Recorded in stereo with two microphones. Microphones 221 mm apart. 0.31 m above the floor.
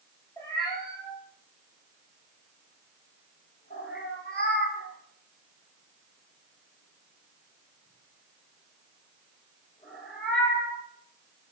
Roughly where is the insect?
No insect in this recording.